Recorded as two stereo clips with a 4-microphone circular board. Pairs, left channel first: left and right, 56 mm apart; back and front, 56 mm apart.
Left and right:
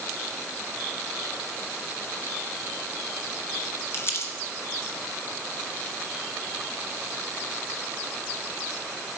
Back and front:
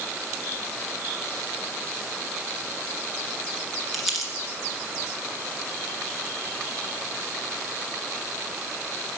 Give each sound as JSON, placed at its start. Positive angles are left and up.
{"t": 3.9, "sound": "crumpling", "azimuth_deg": 90, "distance_m": 1.9}